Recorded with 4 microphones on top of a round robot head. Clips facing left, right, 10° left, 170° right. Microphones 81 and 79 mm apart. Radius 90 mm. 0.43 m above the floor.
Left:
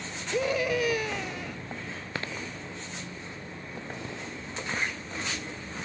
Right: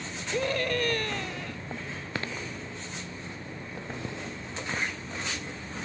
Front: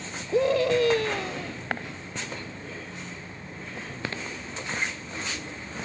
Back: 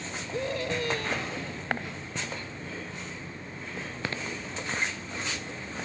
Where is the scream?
5° left.